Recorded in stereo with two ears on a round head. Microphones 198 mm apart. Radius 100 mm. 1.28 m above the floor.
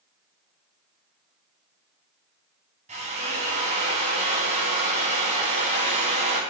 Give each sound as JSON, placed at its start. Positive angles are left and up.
{"t": 2.9, "sound": "a drill", "side_deg": -30, "distance_m": 4.0}